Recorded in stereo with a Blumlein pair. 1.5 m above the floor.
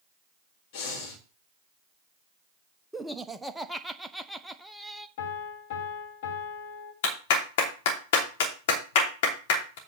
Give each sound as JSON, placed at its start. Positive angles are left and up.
{"t": 0.7, "sound": "breathing", "azimuth_deg": 50, "distance_m": 3.5}
{"t": 2.9, "sound": "laughter", "azimuth_deg": -5, "distance_m": 1.1}
{"t": 5.2, "sound": "a piano", "azimuth_deg": 50, "distance_m": 3.0}
{"t": 7.0, "sound": "a clap", "azimuth_deg": 50, "distance_m": 3.0}